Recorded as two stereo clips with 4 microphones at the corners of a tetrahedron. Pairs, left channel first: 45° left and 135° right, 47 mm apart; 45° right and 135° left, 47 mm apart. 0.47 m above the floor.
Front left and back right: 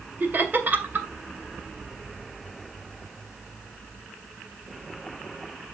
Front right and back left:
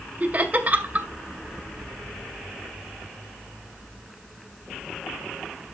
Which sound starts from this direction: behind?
Laughter, at 0.2 s.